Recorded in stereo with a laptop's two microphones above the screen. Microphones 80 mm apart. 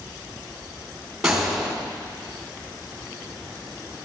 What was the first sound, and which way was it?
A gunshot, 5° right (ahead or behind).